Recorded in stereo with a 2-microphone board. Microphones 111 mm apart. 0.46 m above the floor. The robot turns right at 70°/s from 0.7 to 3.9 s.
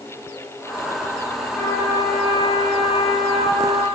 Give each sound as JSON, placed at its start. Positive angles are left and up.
{"t": 1.6, "sound": "a trumpet", "azimuth_deg": 15, "distance_m": 8.0}